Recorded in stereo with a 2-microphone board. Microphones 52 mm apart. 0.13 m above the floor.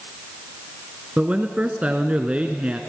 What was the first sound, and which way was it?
A man speaking, 25° right (ahead or behind).